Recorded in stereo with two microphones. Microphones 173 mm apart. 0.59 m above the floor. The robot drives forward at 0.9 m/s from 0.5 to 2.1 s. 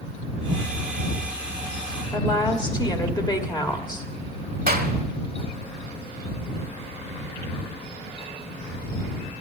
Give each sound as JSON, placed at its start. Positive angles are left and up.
{"t": 2.1, "sound": "a woman speaking", "side_deg": 25, "distance_m": 1.6}
{"t": 4.7, "sound": "a clap", "side_deg": -60, "distance_m": 1.3}